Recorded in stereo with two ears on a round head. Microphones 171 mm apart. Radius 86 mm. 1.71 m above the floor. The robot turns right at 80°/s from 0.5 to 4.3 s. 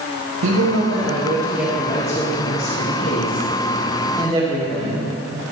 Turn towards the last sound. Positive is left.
turn(degrees=-150)